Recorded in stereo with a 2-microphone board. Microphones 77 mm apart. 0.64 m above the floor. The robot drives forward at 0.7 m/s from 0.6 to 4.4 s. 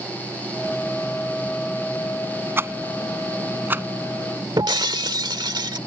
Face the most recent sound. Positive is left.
turn(degrees=-70)  # may be behind; listen again after turning